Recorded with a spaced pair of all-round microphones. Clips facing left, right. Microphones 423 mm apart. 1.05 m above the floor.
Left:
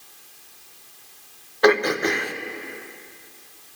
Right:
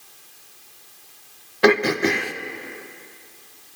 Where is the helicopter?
I don't hear a helicopter.